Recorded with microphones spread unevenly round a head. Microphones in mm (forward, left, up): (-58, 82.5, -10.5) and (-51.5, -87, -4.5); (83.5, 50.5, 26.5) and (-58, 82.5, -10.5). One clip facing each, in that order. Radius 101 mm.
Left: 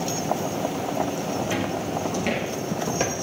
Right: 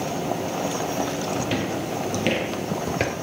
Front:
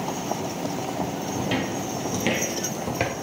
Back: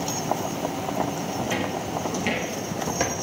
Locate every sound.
1.4 s footsteps: 45° right, 2 m; by 3.1 s 25° right, 1.0 m